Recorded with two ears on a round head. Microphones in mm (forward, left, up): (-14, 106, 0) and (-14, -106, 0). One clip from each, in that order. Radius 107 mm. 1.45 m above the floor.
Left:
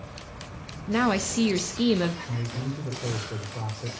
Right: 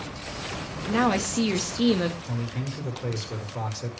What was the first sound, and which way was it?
A woman speaking, centre (ahead or behind).